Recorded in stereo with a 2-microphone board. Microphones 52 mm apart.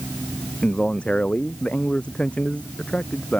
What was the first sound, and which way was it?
A man speaking, 25° left (ahead or behind).